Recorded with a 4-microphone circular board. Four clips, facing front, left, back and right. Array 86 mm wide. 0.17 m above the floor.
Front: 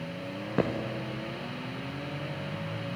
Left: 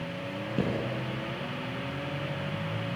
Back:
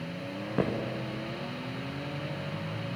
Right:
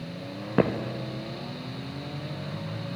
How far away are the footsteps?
About 2.5 m.